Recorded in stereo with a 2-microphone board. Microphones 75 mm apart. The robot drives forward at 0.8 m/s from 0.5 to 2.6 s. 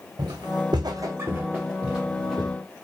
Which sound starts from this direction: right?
Footsteps, at 0.2 s.